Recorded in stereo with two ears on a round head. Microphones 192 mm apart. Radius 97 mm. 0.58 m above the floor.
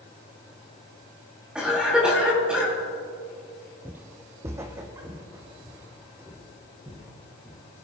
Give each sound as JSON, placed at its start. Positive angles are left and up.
{"t": 1.6, "sound": "a cough", "side_deg": -5, "distance_m": 3.5}
{"t": 3.9, "sound": "footsteps", "side_deg": -5, "distance_m": 0.6}